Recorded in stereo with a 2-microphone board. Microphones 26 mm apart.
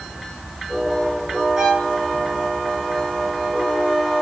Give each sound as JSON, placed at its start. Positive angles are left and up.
{"t": 1.6, "sound": "a violin", "side_deg": -25, "distance_m": 7.0}